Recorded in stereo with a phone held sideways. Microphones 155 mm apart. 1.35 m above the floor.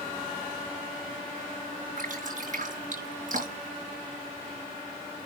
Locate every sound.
2.0 s dripping: 55° right (ahead or behind), 5.5 m